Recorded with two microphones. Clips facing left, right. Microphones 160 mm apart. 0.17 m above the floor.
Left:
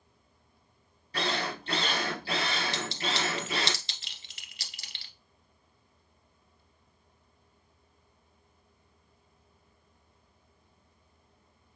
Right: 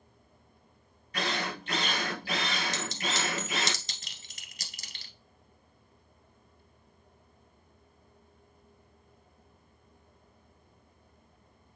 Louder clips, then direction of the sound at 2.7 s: Left 1 dB; 45° right (ahead or behind).